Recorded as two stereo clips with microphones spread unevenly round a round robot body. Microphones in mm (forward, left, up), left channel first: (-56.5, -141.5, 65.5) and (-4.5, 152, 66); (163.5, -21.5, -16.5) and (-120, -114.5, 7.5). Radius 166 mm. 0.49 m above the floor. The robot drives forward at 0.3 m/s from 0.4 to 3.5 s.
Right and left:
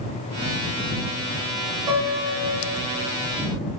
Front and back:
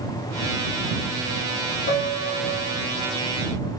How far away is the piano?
About 0.9 m.